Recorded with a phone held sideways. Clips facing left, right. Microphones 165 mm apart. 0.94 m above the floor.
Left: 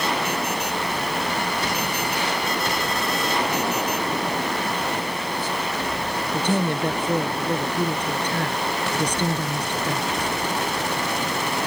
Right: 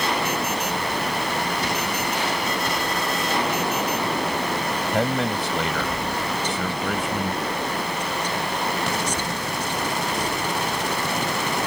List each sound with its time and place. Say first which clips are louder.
4.9 s a man speaking: right 5 dB; 80° right
6.3 s a woman speaking: left 4 dB; 60° left (ahead or behind)